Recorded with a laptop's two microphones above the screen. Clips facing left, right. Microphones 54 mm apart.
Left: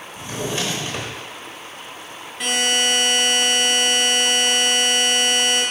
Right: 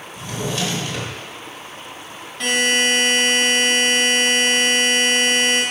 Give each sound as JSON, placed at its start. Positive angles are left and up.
{"t": 0.1, "sound": "a drawer", "side_deg": 30, "distance_m": 0.8}
{"t": 2.4, "sound": "a buzzer", "side_deg": 10, "distance_m": 0.7}